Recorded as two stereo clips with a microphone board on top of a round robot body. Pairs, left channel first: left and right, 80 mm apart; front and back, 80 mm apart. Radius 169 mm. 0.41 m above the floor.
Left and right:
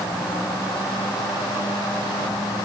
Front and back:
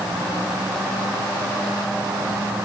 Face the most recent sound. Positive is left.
No sound to turn to.